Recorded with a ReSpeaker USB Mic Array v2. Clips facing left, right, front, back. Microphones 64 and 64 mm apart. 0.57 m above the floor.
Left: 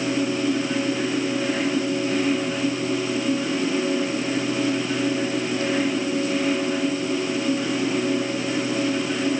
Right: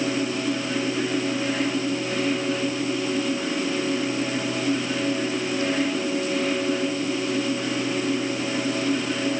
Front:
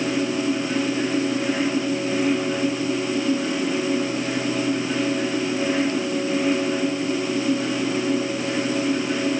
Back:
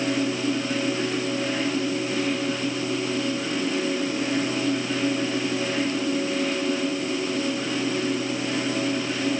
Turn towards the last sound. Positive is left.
No sound to turn to.